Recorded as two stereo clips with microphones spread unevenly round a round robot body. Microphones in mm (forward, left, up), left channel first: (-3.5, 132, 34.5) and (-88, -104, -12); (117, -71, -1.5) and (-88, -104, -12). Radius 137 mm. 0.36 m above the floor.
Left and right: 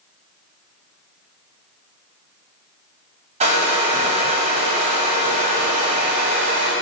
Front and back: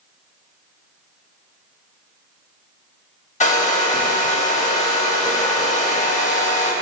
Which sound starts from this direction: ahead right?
A hair dryer, at 3.4 s.